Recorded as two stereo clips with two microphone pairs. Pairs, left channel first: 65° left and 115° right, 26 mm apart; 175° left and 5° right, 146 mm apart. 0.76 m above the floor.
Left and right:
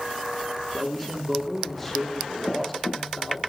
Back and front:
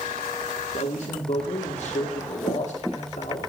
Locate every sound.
0.7 s a man speaking: 145° left, 2 m